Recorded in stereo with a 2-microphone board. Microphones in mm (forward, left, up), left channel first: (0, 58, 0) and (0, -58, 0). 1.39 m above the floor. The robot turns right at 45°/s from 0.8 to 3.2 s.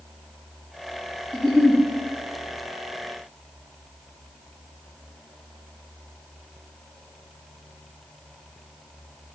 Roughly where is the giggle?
Centre.